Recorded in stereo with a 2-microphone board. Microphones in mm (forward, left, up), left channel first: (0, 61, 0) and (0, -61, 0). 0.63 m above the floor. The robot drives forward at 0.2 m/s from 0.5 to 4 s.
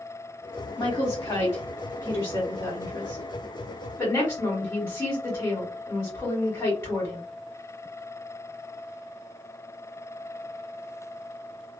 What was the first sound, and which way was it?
A woman speaking, 30° left (ahead or behind).